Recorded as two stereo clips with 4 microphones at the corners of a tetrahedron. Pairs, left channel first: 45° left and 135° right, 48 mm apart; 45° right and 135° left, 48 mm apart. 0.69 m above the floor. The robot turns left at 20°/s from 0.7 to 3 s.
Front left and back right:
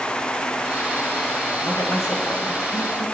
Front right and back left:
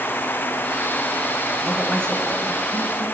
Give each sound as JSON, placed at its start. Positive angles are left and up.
{"t": 1.6, "sound": "a woman speaking", "azimuth_deg": 35, "distance_m": 3.0}